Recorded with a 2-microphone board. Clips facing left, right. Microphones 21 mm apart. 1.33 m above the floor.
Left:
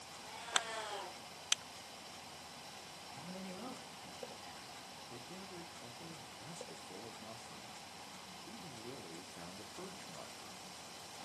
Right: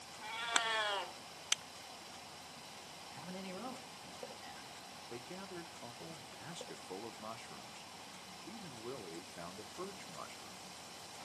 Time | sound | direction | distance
0.2 | a cat meowing | 55° right (ahead or behind) | 1.7 m
3.1 | a man speaking | 20° right (ahead or behind) | 2.0 m
5.1 | a man speaking | 50° right (ahead or behind) | 0.6 m